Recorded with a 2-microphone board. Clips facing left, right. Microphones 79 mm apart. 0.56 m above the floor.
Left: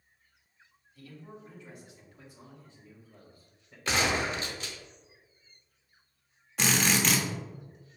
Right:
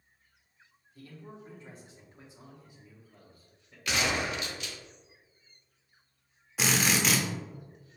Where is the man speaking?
40° right (ahead or behind), 1.4 m; by 3.8 s 10° left (ahead or behind), 1.3 m.